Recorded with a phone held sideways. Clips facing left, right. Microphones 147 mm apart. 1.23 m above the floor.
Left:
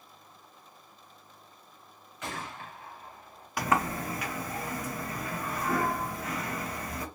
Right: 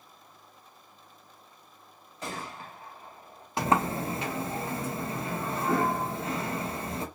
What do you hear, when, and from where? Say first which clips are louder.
2.2 s a gunshot: right 1 dB; 35° right (ahead or behind), 1.8 m
3.6 s a sliding door: right 2 dB; 25° right (ahead or behind), 0.7 m